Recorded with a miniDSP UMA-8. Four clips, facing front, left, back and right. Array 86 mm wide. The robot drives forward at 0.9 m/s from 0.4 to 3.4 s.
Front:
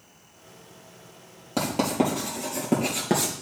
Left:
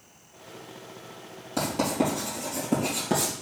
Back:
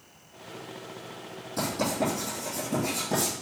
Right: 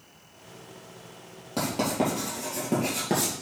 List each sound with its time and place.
1.6 s writing: 10° right, 4 m; by 3.3 s 15° right, 2.5 m